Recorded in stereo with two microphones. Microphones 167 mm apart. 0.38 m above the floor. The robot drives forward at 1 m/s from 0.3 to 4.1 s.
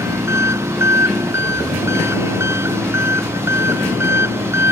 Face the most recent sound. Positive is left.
turn(degrees=-15)  # may be behind; listen again after turning